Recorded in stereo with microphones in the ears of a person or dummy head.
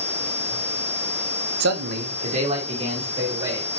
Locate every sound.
1.6 s a man speaking: 80° right, 1.0 m; by 3.7 s 25° right (ahead or behind), 3.5 m